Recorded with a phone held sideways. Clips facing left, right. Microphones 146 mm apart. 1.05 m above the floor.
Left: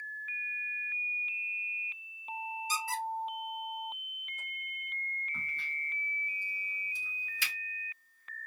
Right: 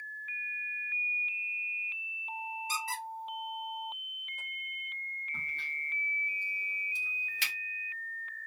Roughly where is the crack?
Right.